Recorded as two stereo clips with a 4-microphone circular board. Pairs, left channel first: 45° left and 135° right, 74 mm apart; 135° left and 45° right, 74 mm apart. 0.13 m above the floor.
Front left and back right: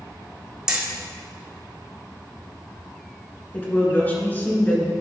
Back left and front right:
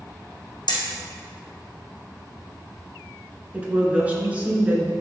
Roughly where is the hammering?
Behind left.